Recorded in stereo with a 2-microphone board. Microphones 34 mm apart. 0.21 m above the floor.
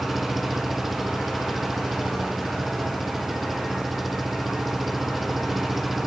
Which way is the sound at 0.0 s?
5° right (ahead or behind).